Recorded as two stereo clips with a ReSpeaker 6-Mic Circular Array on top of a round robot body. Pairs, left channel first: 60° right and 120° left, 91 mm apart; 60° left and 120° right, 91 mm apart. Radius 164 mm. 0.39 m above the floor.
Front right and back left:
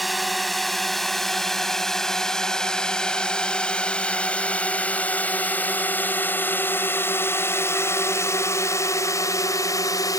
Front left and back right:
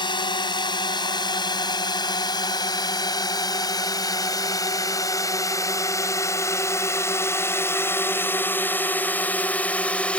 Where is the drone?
30° left; by 10.2 s 15° right.